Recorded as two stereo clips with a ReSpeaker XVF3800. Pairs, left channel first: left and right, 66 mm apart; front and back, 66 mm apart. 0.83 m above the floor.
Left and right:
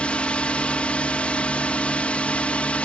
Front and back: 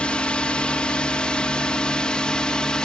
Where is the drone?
50° left; by 2.9 s 55° left.